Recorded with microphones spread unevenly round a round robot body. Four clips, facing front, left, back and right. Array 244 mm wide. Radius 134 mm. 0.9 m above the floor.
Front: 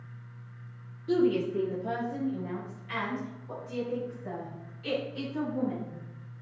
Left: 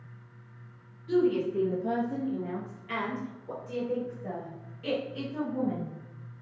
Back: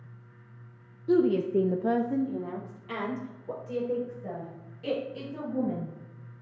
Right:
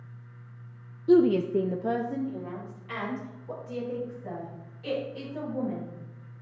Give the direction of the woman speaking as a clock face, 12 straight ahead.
3 o'clock.